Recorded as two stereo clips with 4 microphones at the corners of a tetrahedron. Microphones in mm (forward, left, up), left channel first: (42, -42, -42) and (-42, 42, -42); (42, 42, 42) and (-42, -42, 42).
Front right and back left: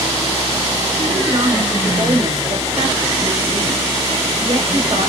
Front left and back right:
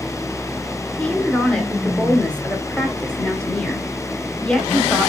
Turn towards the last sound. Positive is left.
turn(degrees=125)